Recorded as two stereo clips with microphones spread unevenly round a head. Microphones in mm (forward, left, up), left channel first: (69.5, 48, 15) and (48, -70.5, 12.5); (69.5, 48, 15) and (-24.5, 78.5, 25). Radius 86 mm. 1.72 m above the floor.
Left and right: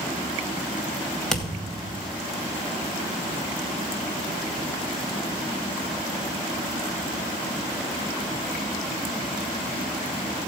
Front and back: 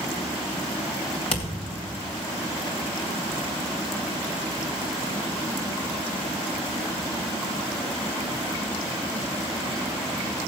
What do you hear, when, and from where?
1.3 s a thud: 5° right, 2.5 m